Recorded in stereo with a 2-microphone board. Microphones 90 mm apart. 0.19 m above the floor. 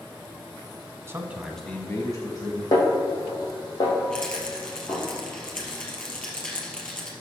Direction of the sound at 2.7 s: 40° left (ahead or behind).